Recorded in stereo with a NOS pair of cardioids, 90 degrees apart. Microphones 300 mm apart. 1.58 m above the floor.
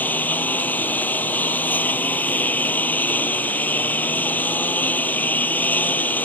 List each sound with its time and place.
0.0 s a lawn mower: 5° left